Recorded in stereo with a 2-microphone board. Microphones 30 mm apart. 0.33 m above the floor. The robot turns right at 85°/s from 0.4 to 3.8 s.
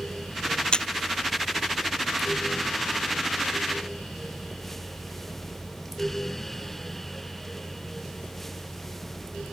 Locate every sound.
0.7 s a camera shutter: 30° left (ahead or behind); by 0.9 s 20° left (ahead or behind)